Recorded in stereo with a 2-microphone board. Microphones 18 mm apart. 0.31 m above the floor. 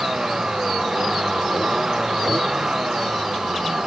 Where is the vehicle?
35° right (ahead or behind).